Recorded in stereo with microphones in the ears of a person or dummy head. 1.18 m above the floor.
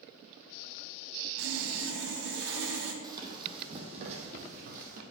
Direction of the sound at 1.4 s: 65° right (ahead or behind).